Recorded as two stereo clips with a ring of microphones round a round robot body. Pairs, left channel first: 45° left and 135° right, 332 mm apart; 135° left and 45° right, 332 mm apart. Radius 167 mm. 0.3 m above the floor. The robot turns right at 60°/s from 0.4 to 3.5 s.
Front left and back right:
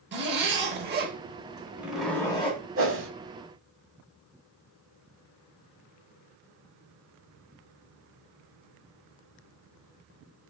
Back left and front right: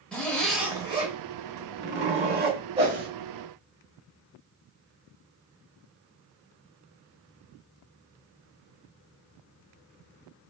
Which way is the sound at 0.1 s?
140° right.